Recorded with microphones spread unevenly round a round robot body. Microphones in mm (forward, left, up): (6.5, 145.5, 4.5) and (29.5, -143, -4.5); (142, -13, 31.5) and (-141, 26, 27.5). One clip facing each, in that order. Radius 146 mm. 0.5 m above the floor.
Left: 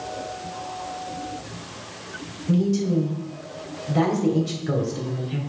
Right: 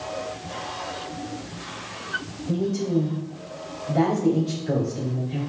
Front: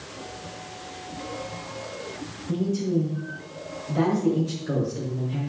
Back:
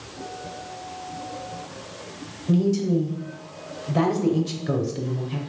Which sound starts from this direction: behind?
A man speaking, at 2.5 s.